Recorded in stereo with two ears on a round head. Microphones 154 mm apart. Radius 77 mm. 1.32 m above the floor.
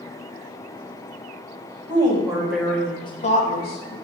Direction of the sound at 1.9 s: 25° right (ahead or behind).